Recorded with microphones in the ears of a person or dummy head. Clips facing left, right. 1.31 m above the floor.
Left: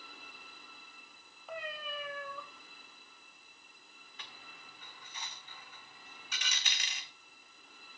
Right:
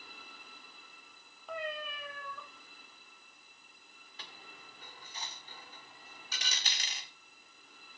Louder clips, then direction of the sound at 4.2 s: Right 2 dB; 30° right (ahead or behind).